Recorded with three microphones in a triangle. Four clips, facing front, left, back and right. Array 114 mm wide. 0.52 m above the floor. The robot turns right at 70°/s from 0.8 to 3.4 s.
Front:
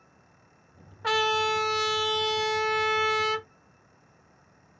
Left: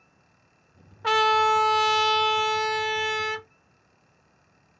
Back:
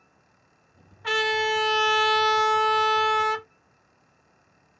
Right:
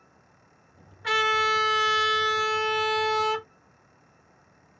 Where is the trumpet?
55° left, 0.8 m; by 3.5 s 140° right, 0.8 m.